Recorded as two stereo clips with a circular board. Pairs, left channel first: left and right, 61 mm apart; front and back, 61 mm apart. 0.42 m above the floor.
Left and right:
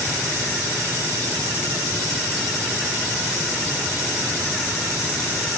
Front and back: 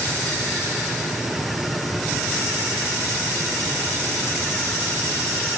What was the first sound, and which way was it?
Only background noise.